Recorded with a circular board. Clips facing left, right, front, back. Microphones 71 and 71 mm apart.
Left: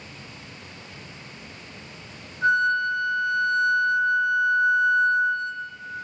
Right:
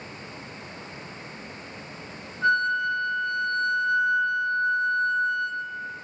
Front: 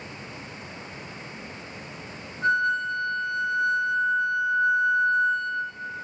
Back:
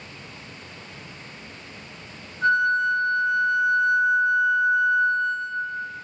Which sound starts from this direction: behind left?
A flute, at 2.4 s.